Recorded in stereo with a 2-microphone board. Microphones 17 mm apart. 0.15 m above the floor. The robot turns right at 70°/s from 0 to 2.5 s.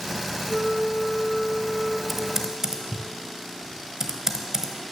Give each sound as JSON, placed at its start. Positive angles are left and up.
{"t": 0.5, "sound": "a flute", "azimuth_deg": -155, "distance_m": 2.0}
{"t": 2.1, "sound": "typing on a keyboard", "side_deg": -10, "distance_m": 0.9}